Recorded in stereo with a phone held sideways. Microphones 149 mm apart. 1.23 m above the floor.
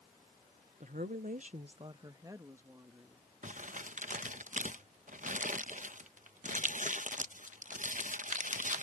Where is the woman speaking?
55° right (ahead or behind); by 3.3 s 15° right (ahead or behind).